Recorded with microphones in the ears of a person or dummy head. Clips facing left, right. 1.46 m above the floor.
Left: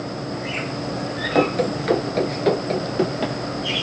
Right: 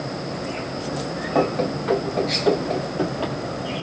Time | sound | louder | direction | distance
1.4 | running footsteps | left 2 dB | 20° left (ahead or behind) | 1.4 m